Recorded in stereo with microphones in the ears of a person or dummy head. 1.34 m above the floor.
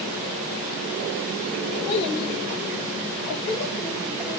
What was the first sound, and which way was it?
A child speaking, 55° left (ahead or behind).